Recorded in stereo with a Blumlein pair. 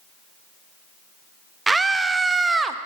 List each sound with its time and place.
1.7 s a scream: 10° right, 0.9 m